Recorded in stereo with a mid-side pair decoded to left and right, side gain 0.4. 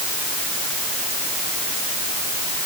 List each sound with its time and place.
Only background noise.